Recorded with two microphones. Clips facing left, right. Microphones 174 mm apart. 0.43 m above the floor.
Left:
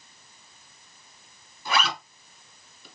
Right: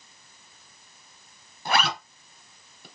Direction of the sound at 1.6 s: 55° right (ahead or behind).